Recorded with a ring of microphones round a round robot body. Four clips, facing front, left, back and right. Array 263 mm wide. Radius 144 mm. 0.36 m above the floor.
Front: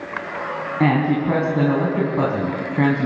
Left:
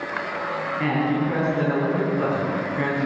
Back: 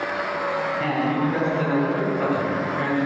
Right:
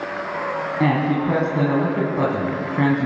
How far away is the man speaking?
About 4.5 m.